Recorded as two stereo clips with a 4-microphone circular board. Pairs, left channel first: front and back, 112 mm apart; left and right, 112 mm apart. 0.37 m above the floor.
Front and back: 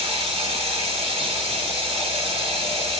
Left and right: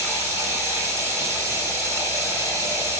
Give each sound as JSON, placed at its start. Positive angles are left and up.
{"t": 0.0, "sound": "running water", "azimuth_deg": -155, "distance_m": 1.7}